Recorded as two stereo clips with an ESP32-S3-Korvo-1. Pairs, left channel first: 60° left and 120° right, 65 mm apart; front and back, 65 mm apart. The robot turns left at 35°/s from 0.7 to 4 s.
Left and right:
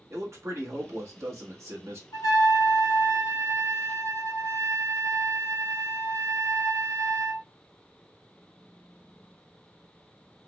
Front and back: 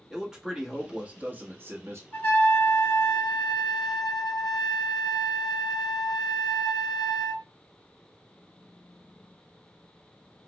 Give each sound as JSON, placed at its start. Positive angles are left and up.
{"t": 0.1, "sound": "a man speaking", "azimuth_deg": -105, "distance_m": 1.1}
{"t": 2.1, "sound": "a trumpet", "azimuth_deg": 65, "distance_m": 1.7}